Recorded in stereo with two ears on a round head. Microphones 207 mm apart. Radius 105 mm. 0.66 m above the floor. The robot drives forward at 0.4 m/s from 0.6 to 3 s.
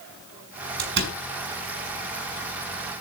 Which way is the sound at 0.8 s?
50° right (ahead or behind).